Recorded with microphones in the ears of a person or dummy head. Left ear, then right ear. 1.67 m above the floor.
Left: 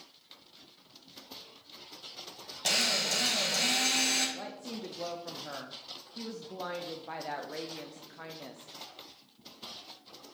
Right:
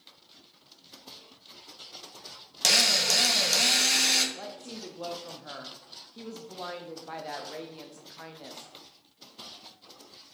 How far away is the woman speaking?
About 0.5 m.